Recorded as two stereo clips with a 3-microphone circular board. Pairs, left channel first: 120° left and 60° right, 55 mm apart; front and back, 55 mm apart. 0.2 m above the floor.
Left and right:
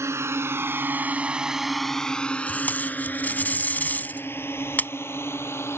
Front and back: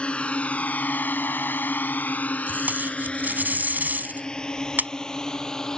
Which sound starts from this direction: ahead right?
A drone, at 0.0 s.